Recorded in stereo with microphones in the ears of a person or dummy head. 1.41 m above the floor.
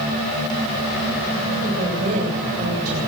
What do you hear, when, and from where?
1.6 s a woman speaking: 45° right (ahead or behind), 8.5 m